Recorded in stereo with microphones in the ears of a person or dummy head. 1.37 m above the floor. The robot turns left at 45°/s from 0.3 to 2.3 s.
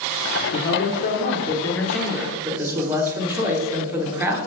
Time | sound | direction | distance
0.5 | a man speaking | 70° left | 1.3 m